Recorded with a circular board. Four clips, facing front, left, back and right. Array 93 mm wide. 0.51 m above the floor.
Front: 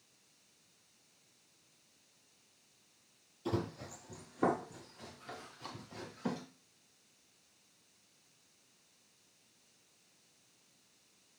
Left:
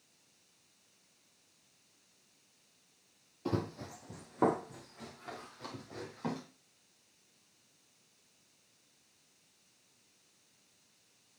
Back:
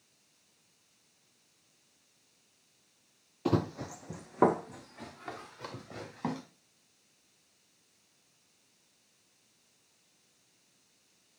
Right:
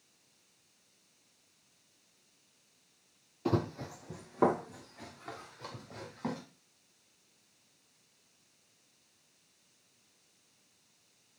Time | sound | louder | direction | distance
3.5 | running footsteps | right 4 dB, back 7 dB | 160° right | 0.9 m